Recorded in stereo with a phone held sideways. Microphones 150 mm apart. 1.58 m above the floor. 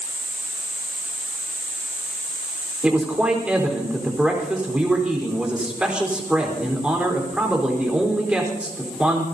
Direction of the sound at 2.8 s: 5° right (ahead or behind).